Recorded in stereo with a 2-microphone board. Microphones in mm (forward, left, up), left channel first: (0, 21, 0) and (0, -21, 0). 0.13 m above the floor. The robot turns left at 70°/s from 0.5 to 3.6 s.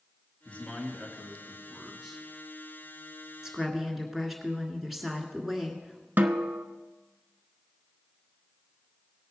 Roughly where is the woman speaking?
Centre.